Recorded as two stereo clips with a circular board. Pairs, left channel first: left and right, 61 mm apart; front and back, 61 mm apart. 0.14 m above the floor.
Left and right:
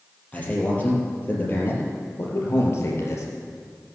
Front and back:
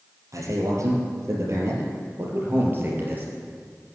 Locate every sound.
0.3 s a man speaking: 155° left, 4 m; by 3.3 s 120° left, 3.5 m